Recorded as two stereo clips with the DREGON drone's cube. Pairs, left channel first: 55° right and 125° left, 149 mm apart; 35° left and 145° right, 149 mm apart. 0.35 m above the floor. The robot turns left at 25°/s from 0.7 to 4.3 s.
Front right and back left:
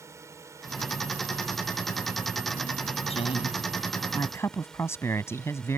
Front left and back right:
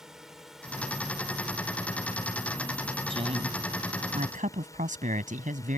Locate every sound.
0.0 s a drone: 135° left; by 5.8 s 20° left
3.1 s a woman speaking: 95° right; by 5.8 s 125° right